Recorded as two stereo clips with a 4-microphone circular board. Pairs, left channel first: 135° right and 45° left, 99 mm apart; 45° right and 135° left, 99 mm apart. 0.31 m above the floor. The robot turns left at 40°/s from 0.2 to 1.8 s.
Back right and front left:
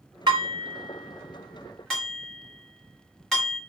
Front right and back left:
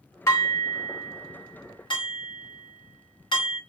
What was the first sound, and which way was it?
Dishes clattering, 10° left.